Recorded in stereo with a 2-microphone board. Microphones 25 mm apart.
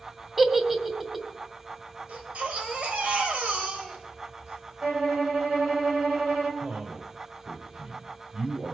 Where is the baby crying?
80° right, 2.5 m.